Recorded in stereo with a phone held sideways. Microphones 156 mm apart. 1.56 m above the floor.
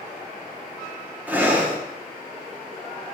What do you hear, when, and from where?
1.3 s breathing: 10° right (ahead or behind), 1.0 m